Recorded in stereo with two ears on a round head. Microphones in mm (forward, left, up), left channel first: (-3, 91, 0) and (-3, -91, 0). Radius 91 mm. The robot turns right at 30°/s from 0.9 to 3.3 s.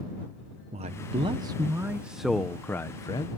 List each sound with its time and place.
0.7 s a man speaking: 40° right; by 3.3 s 30° left